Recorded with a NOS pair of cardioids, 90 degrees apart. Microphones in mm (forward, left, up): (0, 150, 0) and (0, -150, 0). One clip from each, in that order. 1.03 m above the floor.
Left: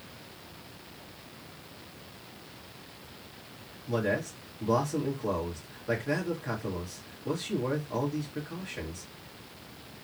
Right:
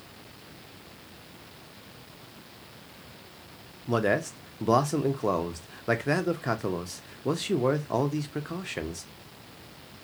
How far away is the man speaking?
About 0.8 m.